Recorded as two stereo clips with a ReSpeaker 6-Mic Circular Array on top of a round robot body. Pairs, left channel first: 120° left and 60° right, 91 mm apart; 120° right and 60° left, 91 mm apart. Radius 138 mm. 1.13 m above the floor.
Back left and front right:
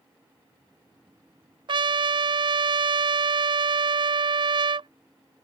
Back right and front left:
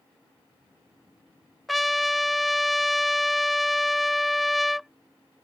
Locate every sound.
1.7 s a trumpet: 30° right